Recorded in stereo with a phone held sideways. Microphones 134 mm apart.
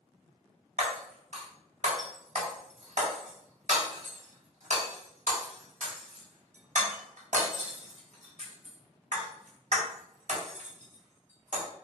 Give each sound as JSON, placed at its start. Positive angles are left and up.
{"t": 0.8, "sound": "breaking glass", "side_deg": -65, "distance_m": 3.5}